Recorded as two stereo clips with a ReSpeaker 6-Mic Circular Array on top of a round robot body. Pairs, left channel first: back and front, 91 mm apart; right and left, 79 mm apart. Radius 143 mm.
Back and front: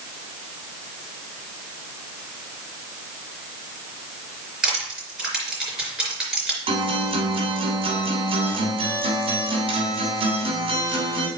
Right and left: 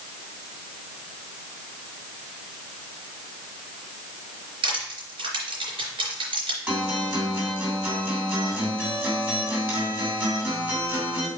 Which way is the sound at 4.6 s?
80° left.